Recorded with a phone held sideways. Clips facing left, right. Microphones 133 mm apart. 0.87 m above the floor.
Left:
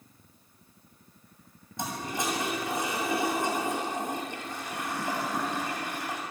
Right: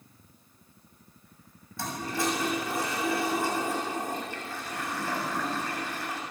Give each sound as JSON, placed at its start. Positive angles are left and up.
{"t": 1.8, "sound": "a toilet flushing", "side_deg": 20, "distance_m": 7.0}